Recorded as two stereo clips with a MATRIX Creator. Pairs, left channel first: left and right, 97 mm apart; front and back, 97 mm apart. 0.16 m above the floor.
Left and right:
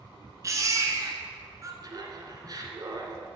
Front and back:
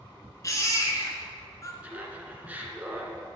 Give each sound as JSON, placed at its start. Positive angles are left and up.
{"t": 0.4, "sound": "a baby crying", "azimuth_deg": -45, "distance_m": 1.2}
{"t": 1.8, "sound": "laughter", "azimuth_deg": -115, "distance_m": 1.6}